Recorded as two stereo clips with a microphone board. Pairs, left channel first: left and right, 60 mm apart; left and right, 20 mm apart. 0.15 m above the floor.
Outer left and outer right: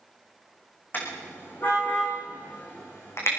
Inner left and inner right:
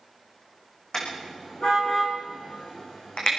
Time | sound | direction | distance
0.9 | a car horn | 35° left (ahead or behind) | 5 m